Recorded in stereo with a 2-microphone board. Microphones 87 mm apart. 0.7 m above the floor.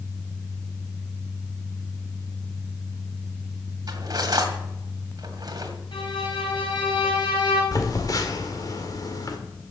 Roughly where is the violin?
Left.